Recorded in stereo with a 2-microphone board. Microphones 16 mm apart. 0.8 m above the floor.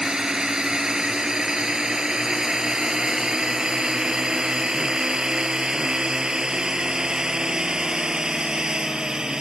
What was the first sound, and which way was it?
A drone, 50° right (ahead or behind).